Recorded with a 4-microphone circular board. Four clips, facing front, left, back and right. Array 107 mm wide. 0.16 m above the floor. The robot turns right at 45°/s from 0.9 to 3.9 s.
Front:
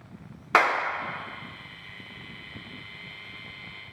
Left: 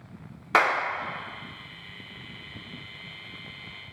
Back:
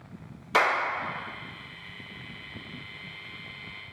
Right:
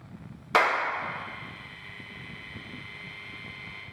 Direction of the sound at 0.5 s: 15° left.